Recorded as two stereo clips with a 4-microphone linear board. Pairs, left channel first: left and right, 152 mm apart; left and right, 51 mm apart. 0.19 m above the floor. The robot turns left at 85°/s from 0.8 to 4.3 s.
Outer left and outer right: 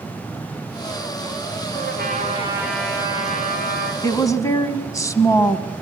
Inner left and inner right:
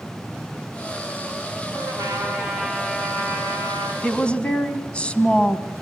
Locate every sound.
1.7 s a trumpet: 95° right, 6.5 m; by 3.9 s 80° left, 6.5 m
4.0 s a woman speaking: 25° left (ahead or behind), 1.1 m; by 5.7 s 20° left (ahead or behind), 1.1 m